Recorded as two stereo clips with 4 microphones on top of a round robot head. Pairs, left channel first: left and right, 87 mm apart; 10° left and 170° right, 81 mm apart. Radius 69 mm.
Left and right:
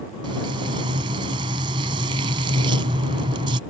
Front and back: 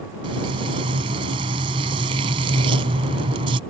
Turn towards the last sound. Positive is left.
turn(degrees=-135)